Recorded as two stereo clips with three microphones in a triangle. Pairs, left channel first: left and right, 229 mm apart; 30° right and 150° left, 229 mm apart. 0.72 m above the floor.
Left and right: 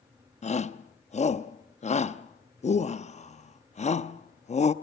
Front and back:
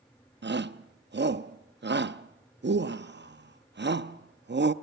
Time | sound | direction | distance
0.4 | a shout | 140° left | 0.7 m